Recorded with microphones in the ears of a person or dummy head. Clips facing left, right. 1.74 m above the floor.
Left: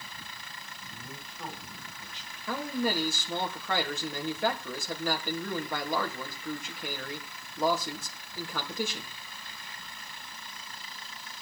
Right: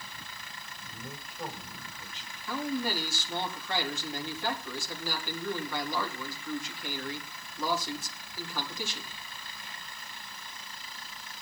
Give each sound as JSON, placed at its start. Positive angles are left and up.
{"t": 0.9, "sound": "a man speaking", "side_deg": -10, "distance_m": 5.0}
{"t": 2.5, "sound": "a man speaking", "side_deg": 50, "distance_m": 3.5}